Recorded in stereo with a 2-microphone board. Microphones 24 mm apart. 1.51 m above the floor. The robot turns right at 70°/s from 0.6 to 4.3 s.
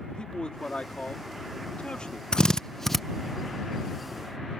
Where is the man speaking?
35° left (ahead or behind); by 2.2 s 30° left (ahead or behind).